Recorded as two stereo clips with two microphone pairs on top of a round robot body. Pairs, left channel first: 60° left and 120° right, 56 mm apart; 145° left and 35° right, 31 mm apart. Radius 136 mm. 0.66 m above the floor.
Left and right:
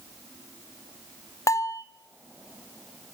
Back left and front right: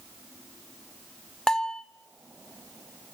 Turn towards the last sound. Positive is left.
turn(degrees=80)